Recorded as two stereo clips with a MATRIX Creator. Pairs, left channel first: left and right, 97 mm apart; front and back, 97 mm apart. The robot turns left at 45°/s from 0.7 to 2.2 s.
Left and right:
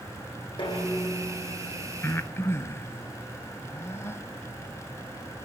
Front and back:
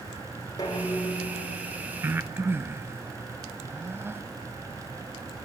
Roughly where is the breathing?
Behind left.